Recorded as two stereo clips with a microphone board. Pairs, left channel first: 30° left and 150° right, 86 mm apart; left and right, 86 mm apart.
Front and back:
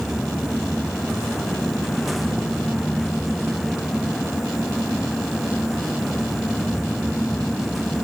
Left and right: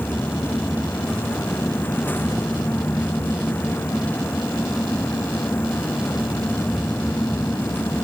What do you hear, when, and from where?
Only background noise.